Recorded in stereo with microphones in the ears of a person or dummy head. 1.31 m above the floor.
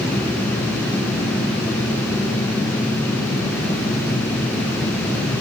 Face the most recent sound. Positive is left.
No sound to turn to.